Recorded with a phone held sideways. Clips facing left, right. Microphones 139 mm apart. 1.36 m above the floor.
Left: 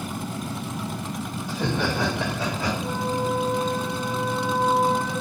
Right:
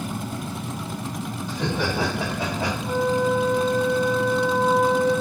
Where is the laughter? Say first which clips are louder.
Even; 10° left (ahead or behind), 1.0 m; by 2.7 s 60° right (ahead or behind), 1.3 m.